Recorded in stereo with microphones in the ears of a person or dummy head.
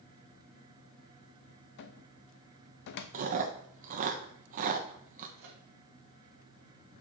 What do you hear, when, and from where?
1.8 s a cupboard door: 60° left (ahead or behind), 0.5 m
3.1 s chewing: 40° right (ahead or behind), 0.8 m
5.4 s a microwave: 50° right (ahead or behind), 1.3 m